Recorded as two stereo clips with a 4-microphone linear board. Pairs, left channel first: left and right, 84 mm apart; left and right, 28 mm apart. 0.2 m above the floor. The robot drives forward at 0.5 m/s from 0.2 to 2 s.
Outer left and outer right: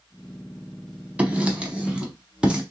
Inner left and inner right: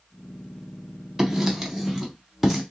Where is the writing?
15° right (ahead or behind), 0.8 m; by 2.6 s 10° right (ahead or behind), 1.0 m.